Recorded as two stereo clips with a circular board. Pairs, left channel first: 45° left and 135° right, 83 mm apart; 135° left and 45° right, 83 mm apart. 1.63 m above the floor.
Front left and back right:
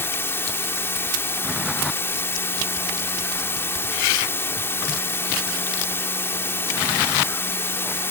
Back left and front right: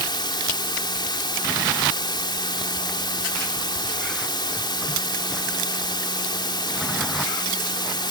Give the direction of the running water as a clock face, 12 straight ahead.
8 o'clock.